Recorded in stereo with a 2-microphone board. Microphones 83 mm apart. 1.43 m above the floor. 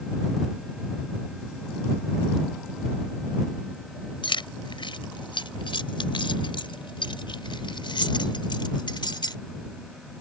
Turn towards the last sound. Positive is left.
turn(degrees=65)  # may be behind; listen again after turning